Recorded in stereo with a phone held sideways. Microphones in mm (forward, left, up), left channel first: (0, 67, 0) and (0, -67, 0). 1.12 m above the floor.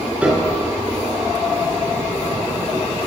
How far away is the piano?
About 4.5 m.